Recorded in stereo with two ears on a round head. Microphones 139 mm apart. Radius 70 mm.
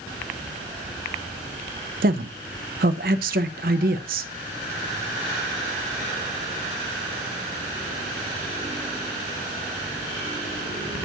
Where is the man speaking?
65° right (ahead or behind), 0.8 m.